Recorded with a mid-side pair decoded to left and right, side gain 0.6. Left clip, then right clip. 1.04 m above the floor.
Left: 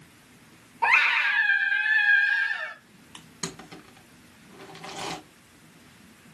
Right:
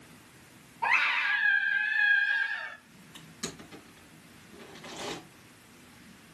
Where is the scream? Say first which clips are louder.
Left 5 dB; 45° left, 1.1 m.